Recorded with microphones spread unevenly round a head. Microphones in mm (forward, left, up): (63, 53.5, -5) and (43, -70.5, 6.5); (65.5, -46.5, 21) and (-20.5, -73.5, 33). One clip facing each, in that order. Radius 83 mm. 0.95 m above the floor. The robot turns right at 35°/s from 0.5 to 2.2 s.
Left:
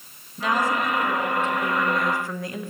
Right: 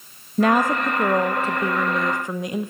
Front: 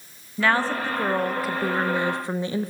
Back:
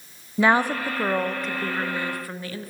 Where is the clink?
No clink in this recording.